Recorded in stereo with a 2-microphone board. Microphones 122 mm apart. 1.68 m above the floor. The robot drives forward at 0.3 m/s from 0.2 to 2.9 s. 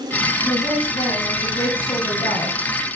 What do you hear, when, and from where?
0.5 s a woman speaking: 40° left (ahead or behind), 10 m; by 2.6 s 45° left (ahead or behind), 9.5 m